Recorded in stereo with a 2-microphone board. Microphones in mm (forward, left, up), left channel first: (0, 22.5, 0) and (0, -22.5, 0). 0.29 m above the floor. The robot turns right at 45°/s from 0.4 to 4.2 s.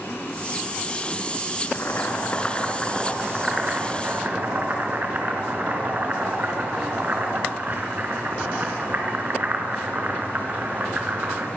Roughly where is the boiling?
Left.